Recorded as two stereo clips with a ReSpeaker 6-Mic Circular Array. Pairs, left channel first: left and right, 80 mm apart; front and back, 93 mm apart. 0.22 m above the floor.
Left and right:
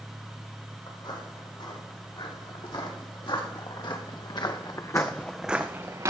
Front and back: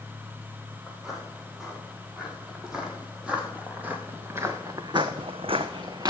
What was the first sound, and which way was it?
Footsteps, 95° left.